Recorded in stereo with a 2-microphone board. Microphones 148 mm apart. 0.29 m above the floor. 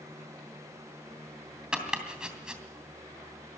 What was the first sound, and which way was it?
Chopping, 5° right (ahead or behind).